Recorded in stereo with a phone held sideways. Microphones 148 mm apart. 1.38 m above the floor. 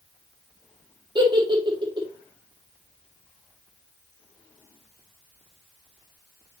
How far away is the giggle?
About 3 m.